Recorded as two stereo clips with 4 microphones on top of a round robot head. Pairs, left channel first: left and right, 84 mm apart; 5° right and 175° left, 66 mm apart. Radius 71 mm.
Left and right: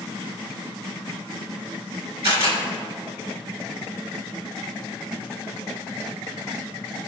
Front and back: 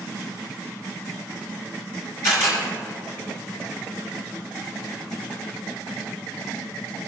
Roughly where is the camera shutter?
Ahead right.